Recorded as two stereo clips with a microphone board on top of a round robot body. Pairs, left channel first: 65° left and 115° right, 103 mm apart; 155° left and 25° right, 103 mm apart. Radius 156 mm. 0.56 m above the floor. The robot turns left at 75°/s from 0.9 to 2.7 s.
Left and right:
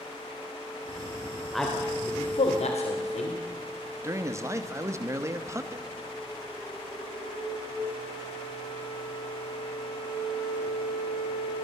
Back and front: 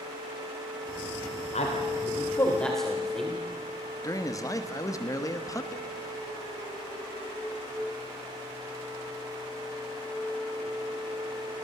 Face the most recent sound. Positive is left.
turn(degrees=-160)